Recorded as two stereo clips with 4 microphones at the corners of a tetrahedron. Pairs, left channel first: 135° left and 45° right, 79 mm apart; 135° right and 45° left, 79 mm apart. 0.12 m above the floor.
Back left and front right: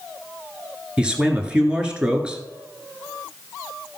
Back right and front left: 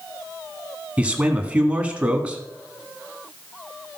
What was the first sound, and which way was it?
A man speaking, 5° left.